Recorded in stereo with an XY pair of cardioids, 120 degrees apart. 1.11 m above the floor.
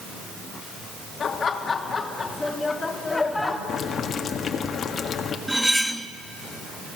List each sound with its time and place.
1.2 s laughter: 40° left, 2 m; by 3.6 s 10° left, 2.5 m
3.7 s boiling: 45° left, 1.6 m
5.5 s cutlery clinking: 5° right, 0.9 m